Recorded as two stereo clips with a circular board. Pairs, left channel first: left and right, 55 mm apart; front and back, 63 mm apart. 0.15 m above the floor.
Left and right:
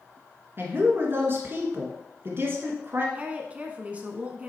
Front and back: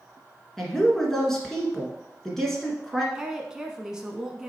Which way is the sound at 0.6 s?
80° right.